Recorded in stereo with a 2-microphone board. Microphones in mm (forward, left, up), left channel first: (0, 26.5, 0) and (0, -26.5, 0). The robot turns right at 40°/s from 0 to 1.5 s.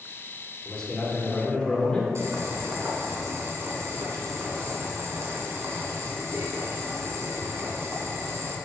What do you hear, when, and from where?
0.7 s a man speaking: 15° left (ahead or behind), 1.2 m; by 2.0 s 20° left (ahead or behind), 1.2 m
2.1 s boiling: 65° right (ahead or behind), 1.4 m